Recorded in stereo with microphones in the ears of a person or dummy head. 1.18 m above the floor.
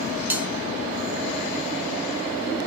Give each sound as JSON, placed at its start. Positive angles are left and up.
{"t": 0.3, "sound": "a bell", "side_deg": -10, "distance_m": 0.7}